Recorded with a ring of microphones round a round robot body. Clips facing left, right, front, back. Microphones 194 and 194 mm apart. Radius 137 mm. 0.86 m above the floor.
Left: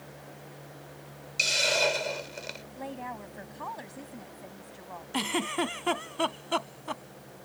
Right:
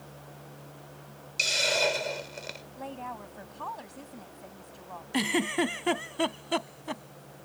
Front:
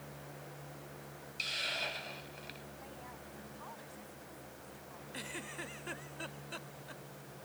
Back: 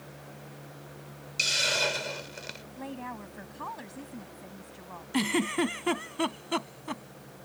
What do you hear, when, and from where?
1.4 s a hiss: straight behind
2.8 s a woman speaking: 170° left
5.1 s a giggle: 165° right